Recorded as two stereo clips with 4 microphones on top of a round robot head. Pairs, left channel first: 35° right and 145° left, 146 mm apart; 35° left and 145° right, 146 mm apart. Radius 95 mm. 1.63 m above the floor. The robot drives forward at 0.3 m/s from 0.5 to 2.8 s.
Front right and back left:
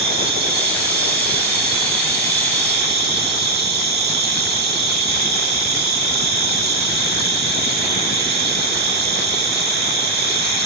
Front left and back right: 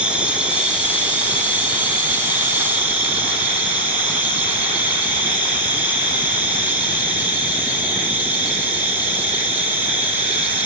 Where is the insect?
130° left, 6.5 m; by 10.7 s 135° left, 7 m.